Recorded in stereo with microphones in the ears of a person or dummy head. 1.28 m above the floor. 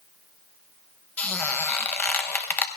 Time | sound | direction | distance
1.2 | a squeak | 10° left (ahead or behind) | 0.8 m